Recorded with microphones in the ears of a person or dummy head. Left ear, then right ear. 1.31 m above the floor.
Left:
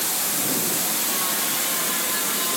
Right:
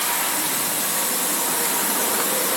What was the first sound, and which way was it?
Only background noise.